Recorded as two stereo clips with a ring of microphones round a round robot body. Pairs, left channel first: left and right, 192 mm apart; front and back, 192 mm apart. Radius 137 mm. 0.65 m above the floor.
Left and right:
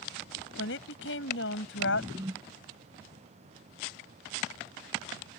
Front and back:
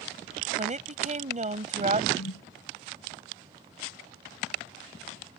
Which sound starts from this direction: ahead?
A whoosh, at 2.1 s.